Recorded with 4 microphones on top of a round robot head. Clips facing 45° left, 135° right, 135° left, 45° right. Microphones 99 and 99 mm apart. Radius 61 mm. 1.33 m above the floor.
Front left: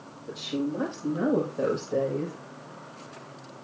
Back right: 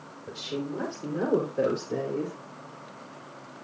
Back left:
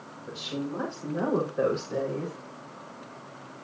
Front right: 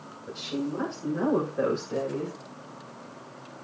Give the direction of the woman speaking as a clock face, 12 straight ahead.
5 o'clock.